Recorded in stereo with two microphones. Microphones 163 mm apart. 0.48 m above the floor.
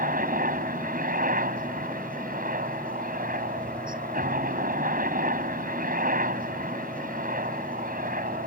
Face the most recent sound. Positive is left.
turn(degrees=-65)  # may be behind; listen again after turning